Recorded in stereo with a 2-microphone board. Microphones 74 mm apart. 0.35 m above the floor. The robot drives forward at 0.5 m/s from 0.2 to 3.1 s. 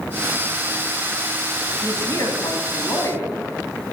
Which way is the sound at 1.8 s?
50° left (ahead or behind).